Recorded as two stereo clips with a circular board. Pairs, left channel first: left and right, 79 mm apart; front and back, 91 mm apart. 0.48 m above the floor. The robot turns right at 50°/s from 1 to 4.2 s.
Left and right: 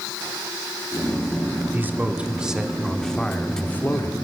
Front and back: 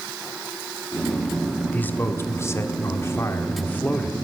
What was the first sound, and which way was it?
A man speaking, 50° right.